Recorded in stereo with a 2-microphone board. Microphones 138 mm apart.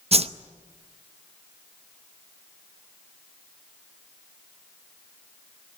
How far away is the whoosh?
About 0.7 m.